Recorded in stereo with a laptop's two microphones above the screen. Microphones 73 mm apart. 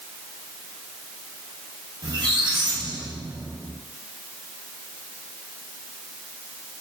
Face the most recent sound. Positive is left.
turn(degrees=-80)